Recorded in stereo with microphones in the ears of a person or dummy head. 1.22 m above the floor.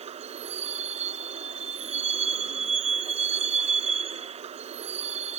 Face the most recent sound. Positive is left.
turn(degrees=-30)  # may be behind; listen again after turning